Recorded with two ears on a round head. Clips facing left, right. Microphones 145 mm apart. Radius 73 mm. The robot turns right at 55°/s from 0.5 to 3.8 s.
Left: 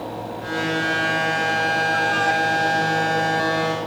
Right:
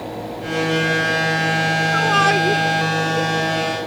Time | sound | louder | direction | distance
1.9 | a shout | right 3 dB | 65° right (ahead or behind) | ?